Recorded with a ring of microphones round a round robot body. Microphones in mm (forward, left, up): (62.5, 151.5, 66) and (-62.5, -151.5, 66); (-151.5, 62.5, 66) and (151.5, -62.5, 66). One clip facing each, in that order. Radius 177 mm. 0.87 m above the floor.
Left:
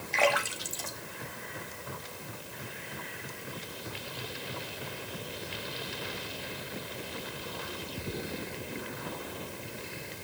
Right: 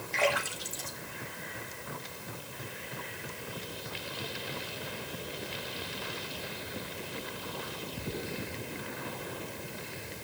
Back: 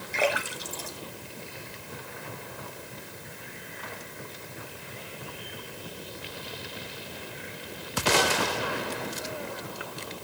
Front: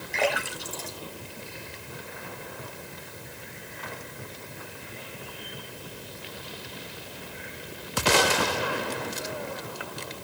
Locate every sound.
0.1 s a splash: 70° left, 2.5 m